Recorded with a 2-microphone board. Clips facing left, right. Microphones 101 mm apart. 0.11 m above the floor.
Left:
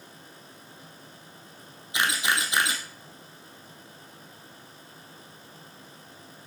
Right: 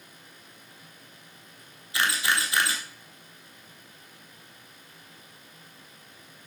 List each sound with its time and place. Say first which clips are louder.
1.9 s a camera shutter: even; 20° left (ahead or behind), 2 m